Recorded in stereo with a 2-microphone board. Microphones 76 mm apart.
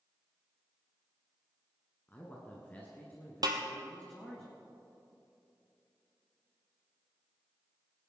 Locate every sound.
2.1 s a man speaking: 25° left (ahead or behind), 1.6 m; by 4.4 s 20° left (ahead or behind), 3 m
3.4 s a snare drum: 60° right (ahead or behind), 1.4 m